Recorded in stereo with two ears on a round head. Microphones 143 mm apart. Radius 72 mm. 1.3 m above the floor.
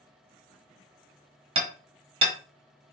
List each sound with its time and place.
1.6 s hammering: 35° right (ahead or behind), 1.0 m